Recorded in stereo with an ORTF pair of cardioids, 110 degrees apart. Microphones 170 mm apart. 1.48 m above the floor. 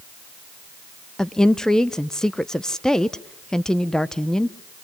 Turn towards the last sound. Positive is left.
turn(degrees=5)